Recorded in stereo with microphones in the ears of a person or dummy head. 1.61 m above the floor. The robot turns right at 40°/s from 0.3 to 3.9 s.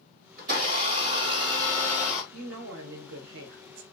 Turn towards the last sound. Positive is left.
turn(degrees=-70)